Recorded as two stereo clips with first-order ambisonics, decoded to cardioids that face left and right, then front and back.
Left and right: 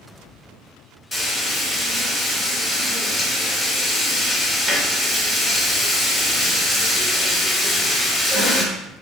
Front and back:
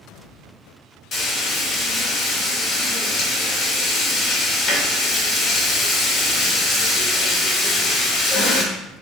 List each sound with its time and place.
1.1 s frying: straight ahead, 1.1 m